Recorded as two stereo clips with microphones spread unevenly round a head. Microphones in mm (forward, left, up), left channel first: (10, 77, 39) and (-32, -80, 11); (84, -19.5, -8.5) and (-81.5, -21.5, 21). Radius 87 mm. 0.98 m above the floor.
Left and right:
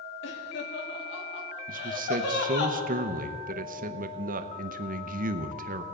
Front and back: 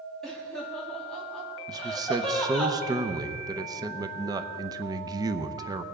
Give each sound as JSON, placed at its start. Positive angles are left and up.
{"t": 0.2, "sound": "laughter", "azimuth_deg": 85, "distance_m": 2.0}
{"t": 1.7, "sound": "a man speaking", "azimuth_deg": -110, "distance_m": 0.7}